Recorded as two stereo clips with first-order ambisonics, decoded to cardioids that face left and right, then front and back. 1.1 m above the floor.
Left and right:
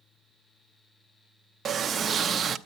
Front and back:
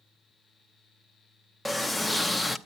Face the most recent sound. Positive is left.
turn(degrees=-95)